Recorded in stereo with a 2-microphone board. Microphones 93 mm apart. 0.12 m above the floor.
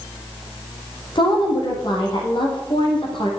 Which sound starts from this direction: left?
A woman speaking, at 1.1 s.